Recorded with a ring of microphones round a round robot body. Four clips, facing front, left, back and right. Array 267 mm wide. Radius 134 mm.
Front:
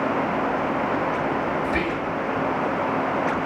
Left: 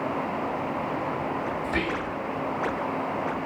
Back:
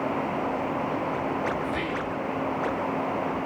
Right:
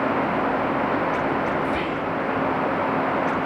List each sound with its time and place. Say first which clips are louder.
1.6 s whispering: right 4 dB, front 4 dB; 40° left, 3.5 m